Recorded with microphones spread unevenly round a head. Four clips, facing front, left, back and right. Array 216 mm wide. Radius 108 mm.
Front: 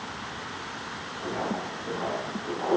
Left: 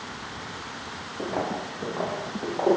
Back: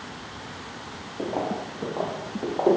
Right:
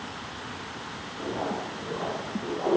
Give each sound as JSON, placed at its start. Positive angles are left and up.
{"t": 1.2, "sound": "footsteps", "azimuth_deg": 155, "distance_m": 9.5}